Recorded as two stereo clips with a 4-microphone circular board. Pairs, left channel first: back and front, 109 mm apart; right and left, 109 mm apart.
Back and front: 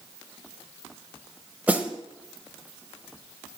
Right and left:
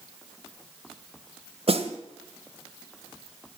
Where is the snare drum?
75° left, 1.4 m.